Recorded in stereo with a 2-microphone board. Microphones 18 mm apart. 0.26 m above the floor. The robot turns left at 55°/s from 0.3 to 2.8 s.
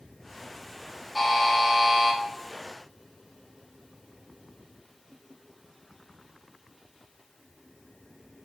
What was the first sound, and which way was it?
A buzzer, 5° left.